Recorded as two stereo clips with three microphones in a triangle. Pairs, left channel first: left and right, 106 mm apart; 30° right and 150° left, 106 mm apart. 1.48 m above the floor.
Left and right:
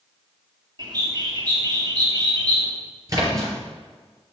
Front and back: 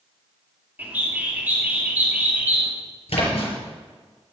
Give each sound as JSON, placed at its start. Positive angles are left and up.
{"t": 0.8, "sound": "a bird", "azimuth_deg": -135, "distance_m": 2.5}
{"t": 3.1, "sound": "a splash", "azimuth_deg": -35, "distance_m": 5.5}